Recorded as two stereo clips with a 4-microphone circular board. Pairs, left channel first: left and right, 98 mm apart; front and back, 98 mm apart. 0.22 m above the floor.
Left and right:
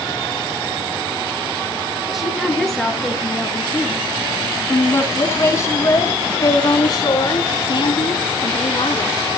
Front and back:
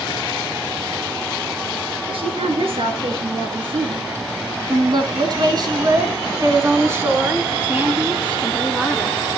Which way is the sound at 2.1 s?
Straight behind.